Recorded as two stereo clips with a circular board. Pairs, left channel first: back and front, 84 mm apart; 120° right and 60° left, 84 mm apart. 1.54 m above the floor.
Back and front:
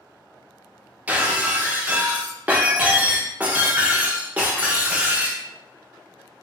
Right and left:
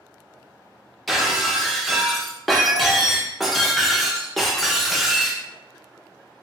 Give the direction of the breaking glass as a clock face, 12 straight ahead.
1 o'clock.